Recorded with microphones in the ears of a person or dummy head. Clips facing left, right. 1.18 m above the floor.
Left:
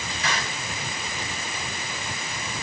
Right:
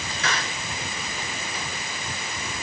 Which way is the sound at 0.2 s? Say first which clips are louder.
Right 1 dB; 50° right (ahead or behind).